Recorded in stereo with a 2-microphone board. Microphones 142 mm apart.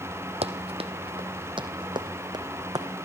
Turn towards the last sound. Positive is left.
turn(degrees=-30)  # may be behind; listen again after turning